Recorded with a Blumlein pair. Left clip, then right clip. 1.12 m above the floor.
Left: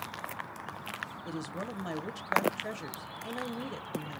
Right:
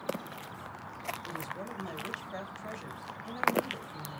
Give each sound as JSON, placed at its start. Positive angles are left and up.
{"t": 1.2, "sound": "a woman speaking", "azimuth_deg": 25, "distance_m": 0.6}